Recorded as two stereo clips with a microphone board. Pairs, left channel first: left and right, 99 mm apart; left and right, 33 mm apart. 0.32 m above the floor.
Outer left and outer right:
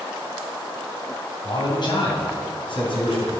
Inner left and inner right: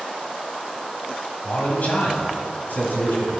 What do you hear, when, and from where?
1.4 s a man speaking: 50° left (ahead or behind), 2.5 m; by 3.3 s 60° left (ahead or behind), 3 m